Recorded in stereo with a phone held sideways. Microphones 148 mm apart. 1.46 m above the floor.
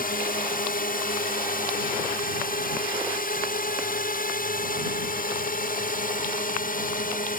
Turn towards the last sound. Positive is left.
turn(degrees=70)  # may be behind; listen again after turning